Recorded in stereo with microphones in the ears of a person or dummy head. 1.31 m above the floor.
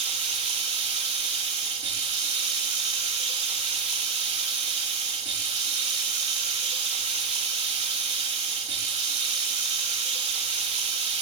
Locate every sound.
0.0 s running water: 30° right (ahead or behind), 1.8 m